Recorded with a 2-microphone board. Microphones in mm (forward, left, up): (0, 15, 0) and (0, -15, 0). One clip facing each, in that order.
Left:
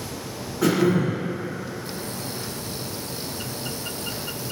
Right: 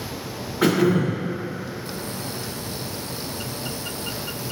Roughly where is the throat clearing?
Right.